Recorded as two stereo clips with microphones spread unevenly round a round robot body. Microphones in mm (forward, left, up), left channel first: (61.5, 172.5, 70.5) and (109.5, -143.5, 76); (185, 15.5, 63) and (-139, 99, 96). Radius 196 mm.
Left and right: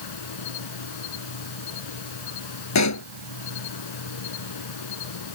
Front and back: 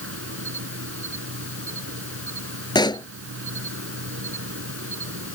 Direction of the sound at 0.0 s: 115° left.